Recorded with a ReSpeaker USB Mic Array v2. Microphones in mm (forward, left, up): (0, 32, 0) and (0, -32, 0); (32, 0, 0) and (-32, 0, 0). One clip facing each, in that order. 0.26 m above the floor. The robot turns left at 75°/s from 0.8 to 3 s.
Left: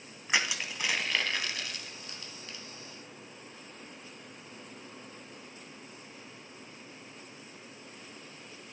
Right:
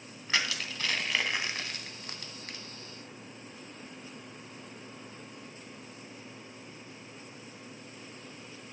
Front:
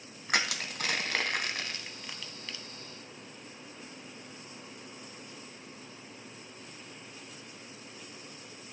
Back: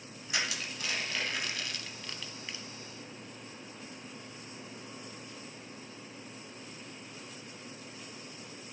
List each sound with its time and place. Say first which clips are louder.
0.3 s crushing: left 1 dB, front 4 dB; 20° left, 0.7 m; by 2.6 s 120° right, 0.7 m